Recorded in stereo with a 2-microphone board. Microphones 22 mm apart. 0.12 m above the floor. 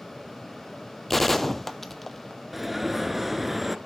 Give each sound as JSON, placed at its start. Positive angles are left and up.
{"t": 1.1, "sound": "a gunshot", "side_deg": 10, "distance_m": 0.8}
{"t": 2.5, "sound": "an alarm", "side_deg": -5, "distance_m": 1.0}